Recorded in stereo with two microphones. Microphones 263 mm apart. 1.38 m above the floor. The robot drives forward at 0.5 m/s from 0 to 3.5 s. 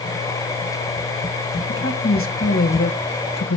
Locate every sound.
1.7 s a woman speaking: 45° left (ahead or behind), 1.6 m; by 3.6 s 80° left, 1.2 m